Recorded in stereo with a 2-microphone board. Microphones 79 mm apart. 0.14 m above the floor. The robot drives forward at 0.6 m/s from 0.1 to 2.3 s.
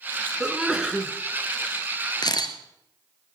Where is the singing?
No singing in this recording.